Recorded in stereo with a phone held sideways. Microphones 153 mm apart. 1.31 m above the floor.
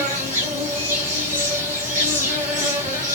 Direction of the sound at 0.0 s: 55° right (ahead or behind).